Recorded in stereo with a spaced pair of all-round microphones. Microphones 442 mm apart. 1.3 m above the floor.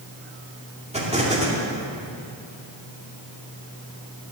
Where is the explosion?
15° right (ahead or behind), 2.5 m.